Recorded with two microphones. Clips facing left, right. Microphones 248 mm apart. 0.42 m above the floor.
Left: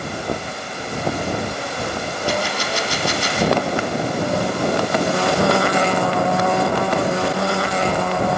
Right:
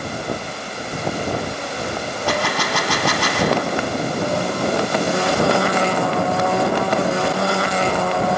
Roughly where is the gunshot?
Right.